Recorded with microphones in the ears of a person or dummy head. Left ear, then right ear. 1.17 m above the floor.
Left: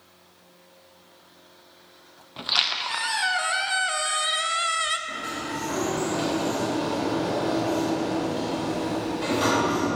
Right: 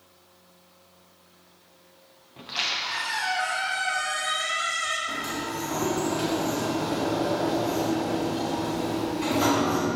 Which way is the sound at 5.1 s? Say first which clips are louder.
Even; centre (ahead or behind).